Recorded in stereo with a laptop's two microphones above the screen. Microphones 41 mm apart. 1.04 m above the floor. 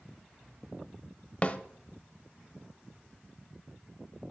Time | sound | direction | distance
1.4 | a snare drum | 30° left (ahead or behind) | 0.7 m